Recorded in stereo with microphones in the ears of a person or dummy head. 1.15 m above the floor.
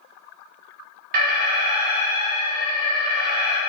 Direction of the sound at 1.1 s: 55° right (ahead or behind).